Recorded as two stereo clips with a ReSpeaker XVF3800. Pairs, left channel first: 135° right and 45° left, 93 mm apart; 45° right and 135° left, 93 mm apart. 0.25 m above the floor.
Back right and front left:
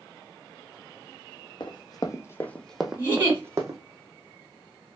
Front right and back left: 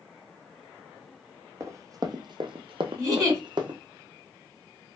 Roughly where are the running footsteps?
Behind.